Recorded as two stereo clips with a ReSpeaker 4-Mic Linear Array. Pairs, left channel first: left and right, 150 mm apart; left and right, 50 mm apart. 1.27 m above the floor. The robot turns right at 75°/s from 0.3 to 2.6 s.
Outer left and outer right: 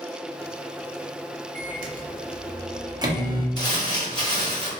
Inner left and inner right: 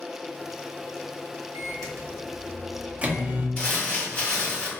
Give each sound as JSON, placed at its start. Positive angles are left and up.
{"t": 1.6, "sound": "a microwave", "side_deg": -60, "distance_m": 0.6}
{"t": 3.6, "sound": "crumpling", "side_deg": 30, "distance_m": 1.1}